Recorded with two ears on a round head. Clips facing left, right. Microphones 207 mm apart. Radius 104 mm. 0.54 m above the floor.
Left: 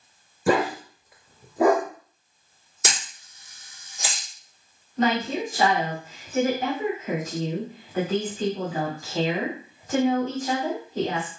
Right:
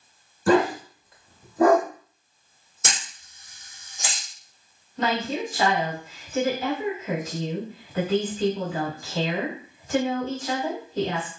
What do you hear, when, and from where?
0.5 s a dog barking: 10° left (ahead or behind), 0.7 m
2.8 s a camera shutter: 55° left (ahead or behind), 2 m
5.0 s a woman speaking: 35° left (ahead or behind), 1.8 m